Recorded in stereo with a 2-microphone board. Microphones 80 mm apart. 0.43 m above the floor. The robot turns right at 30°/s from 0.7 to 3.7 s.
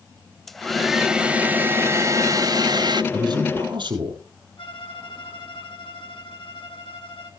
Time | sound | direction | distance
0.5 | a hair dryer | 175° left | 0.7 m
3.1 | a man speaking | 55° right (ahead or behind) | 6.5 m
4.6 | a violin | 80° left | 3 m